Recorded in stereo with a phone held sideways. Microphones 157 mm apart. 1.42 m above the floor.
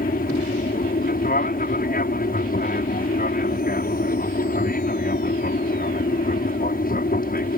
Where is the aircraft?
70° left (ahead or behind).